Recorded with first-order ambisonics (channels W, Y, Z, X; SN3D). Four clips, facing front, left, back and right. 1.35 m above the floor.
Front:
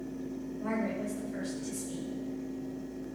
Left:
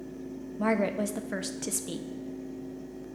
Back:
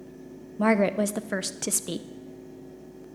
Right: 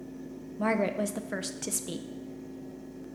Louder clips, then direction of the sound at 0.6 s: Left 1 dB, back 12 dB; straight behind.